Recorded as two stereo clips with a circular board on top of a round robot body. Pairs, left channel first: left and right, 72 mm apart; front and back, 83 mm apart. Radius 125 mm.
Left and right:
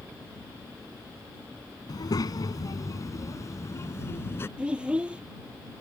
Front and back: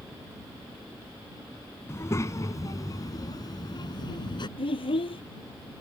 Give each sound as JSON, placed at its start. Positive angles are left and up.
{"t": 1.9, "sound": "a child speaking", "azimuth_deg": 60}
{"t": 4.6, "sound": "a child speaking", "azimuth_deg": -15}